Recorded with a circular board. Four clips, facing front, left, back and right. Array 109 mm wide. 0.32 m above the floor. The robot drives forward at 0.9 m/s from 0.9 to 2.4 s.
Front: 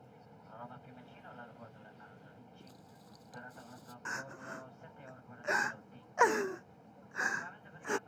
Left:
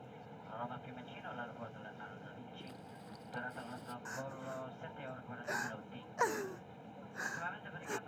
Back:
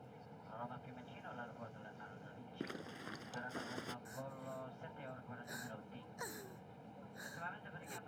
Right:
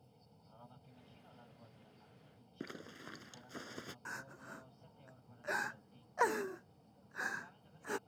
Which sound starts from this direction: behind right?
A zipper, at 2.6 s.